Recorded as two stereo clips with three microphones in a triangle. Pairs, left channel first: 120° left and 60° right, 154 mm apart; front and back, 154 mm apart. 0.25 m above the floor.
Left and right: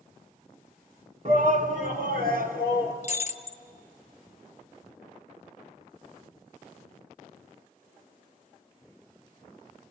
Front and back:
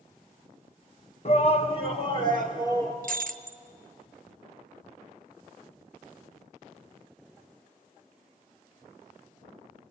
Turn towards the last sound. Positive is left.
turn(degrees=160)